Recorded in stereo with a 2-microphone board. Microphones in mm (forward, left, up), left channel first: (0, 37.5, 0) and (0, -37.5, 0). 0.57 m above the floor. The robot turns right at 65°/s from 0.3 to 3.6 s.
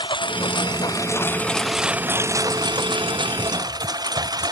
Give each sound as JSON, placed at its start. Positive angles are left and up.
{"t": 0.0, "sound": "a lawn mower", "azimuth_deg": 90}